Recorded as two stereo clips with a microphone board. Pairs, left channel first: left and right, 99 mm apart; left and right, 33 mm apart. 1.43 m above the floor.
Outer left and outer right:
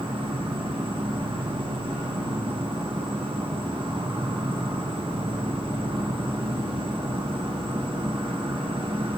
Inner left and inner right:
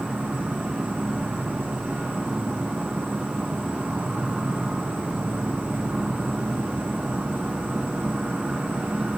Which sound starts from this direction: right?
An insect, at 0.0 s.